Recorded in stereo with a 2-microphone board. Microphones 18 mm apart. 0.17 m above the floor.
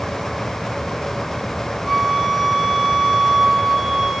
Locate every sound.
1.9 s a flute: 25° right (ahead or behind), 1.0 m